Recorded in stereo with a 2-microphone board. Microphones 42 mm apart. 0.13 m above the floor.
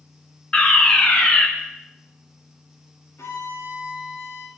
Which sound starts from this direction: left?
A violin, at 3.2 s.